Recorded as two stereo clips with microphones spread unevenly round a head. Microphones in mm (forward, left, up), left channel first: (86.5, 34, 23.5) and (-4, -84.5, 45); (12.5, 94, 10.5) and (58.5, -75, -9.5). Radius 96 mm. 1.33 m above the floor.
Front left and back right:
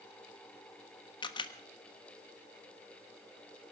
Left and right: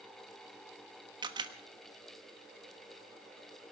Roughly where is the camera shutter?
Ahead.